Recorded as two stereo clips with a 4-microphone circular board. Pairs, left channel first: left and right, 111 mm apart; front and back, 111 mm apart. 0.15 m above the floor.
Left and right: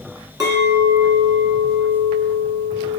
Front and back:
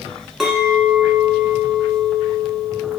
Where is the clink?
100° right, 1.3 m.